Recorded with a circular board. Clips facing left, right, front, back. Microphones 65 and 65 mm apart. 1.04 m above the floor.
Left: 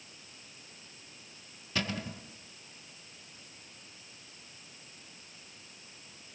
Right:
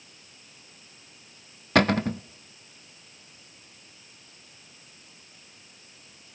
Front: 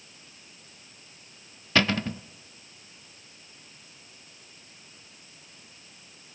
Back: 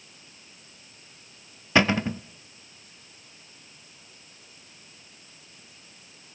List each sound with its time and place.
1.8 s a cupboard door: 110° right, 0.6 m